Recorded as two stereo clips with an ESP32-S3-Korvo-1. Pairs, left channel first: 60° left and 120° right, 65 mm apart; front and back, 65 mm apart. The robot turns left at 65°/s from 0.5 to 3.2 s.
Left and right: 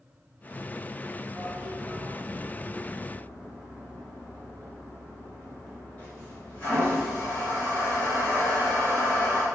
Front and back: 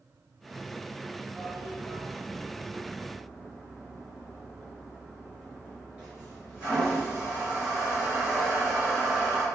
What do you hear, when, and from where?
1.4 s a toilet flushing: 125° right, 1.1 m; by 9.4 s 115° left, 1.1 m